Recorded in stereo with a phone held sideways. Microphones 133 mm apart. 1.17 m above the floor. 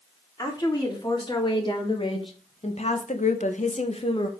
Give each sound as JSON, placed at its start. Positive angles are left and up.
{"t": 0.4, "sound": "a woman speaking", "side_deg": 30, "distance_m": 3.5}